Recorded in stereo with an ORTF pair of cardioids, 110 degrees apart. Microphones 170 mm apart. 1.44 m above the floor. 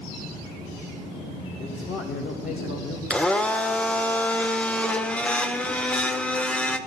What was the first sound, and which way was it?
A man speaking, 55° left.